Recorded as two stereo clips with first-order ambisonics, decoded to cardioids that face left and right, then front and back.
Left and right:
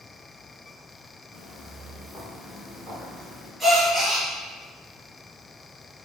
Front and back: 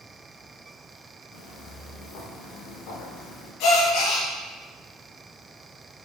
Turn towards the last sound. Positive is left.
turn(degrees=-5)